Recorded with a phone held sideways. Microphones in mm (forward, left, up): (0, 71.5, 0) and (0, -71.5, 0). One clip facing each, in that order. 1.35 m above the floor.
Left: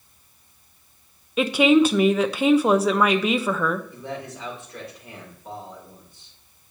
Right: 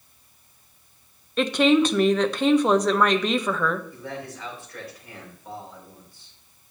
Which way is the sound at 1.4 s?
10° left (ahead or behind).